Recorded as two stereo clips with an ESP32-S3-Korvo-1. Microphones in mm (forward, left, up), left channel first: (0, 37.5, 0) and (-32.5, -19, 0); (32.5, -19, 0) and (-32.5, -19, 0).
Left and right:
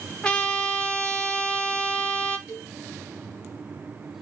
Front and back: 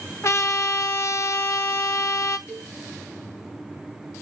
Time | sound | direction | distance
0.2 | a trumpet | 5° right | 0.5 m
2.5 | a cowbell | 55° right | 4 m